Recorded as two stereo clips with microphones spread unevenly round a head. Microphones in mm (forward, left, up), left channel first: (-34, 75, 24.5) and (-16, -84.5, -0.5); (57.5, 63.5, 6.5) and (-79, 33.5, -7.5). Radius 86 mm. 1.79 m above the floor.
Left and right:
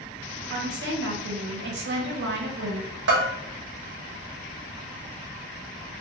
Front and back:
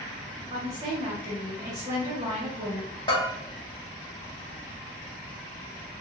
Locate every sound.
0.5 s a woman speaking: 100° right, 0.9 m
3.1 s a bell: 50° right, 0.8 m